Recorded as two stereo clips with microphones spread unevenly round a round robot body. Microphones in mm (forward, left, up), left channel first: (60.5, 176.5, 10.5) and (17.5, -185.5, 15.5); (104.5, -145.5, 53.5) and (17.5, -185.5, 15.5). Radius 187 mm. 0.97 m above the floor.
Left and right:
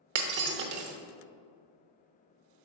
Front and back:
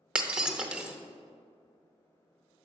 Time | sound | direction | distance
0.1 | breaking glass | 55° right | 0.7 m